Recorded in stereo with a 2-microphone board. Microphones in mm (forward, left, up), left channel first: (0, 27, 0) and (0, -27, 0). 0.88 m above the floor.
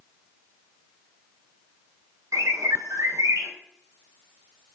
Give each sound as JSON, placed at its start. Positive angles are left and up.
{"t": 2.3, "sound": "a bird", "side_deg": -80, "distance_m": 3.5}